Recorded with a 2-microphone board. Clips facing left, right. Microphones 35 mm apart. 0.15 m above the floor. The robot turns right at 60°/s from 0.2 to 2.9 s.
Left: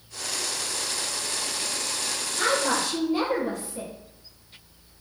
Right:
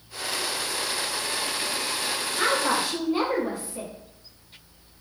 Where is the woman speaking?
25° right (ahead or behind), 1.1 m.